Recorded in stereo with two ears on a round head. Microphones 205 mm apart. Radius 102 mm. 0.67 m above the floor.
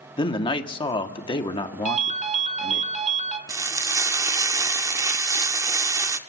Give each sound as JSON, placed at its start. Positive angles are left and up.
{"t": 0.2, "sound": "a man speaking", "side_deg": 20, "distance_m": 1.3}
{"t": 1.9, "sound": "a ringtone", "side_deg": -30, "distance_m": 1.6}
{"t": 3.5, "sound": "frying", "side_deg": -15, "distance_m": 0.9}